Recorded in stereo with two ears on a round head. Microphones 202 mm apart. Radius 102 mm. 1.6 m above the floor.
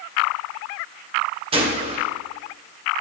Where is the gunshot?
25° right (ahead or behind), 1.1 m.